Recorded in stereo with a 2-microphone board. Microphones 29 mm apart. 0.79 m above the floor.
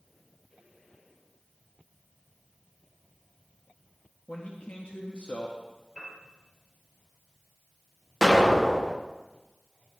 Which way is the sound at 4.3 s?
55° left (ahead or behind).